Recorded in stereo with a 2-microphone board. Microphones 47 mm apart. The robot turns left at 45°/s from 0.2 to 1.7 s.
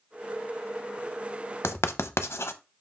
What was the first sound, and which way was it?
Writing, 70° left (ahead or behind).